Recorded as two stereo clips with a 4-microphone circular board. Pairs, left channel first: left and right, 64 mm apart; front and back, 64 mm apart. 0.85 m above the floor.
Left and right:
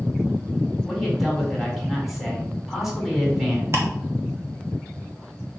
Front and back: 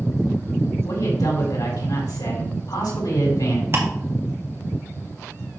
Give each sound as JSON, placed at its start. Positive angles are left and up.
{"t": 0.8, "sound": "a man speaking", "azimuth_deg": -5, "distance_m": 3.0}
{"t": 3.7, "sound": "ticking", "azimuth_deg": -135, "distance_m": 2.0}